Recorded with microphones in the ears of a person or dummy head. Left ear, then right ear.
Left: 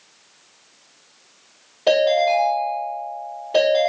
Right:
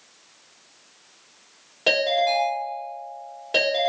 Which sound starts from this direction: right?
A ringtone, at 1.9 s.